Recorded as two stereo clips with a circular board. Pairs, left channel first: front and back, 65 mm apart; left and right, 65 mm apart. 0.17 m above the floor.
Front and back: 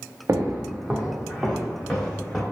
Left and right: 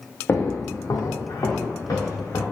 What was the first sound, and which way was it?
Footsteps, 140° left.